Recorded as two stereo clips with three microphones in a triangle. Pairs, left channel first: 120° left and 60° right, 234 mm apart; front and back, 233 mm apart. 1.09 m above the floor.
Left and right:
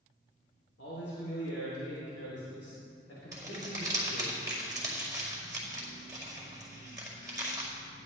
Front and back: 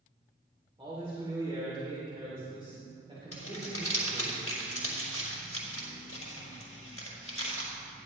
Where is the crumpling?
15° left, 5 m.